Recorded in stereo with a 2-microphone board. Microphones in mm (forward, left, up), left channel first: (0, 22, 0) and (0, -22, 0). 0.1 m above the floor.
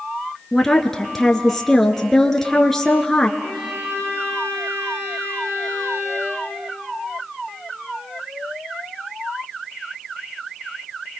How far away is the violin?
About 9 m.